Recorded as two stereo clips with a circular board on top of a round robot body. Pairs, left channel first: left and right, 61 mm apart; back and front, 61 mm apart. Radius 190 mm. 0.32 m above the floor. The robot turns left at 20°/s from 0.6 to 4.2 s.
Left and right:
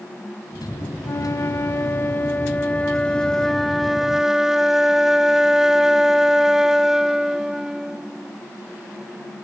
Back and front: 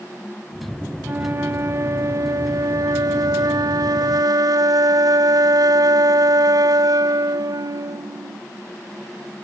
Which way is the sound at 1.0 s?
55° left.